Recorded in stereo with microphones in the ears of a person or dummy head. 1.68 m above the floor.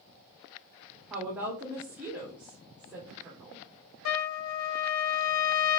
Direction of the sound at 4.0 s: 75° left (ahead or behind).